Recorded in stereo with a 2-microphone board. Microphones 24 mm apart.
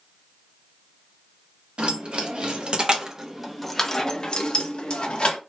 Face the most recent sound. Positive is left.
turn(degrees=60)  # may be behind; listen again after turning